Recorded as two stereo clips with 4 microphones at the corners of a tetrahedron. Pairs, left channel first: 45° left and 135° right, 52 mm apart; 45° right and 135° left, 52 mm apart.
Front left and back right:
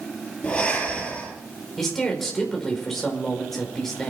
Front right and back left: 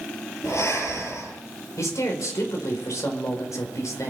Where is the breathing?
30° right, 6.5 m.